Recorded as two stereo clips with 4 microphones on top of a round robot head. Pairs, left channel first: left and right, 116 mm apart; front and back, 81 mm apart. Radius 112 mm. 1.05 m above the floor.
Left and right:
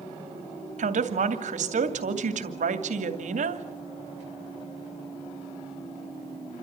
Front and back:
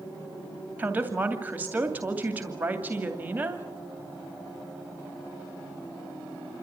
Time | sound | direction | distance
0.8 | a woman speaking | 105° right | 2.5 m